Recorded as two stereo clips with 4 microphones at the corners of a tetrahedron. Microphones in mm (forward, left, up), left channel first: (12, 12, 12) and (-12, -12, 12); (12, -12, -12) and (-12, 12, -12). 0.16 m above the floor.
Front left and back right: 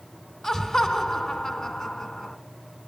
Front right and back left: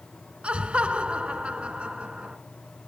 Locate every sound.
0.4 s laughter: 115° left, 1.9 m